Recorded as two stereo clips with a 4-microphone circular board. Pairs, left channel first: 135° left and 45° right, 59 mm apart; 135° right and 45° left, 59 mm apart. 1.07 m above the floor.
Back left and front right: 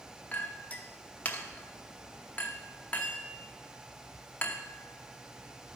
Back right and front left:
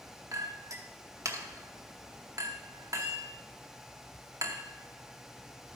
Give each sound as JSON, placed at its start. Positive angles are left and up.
{"t": 0.3, "sound": "a clink", "azimuth_deg": 70, "distance_m": 0.9}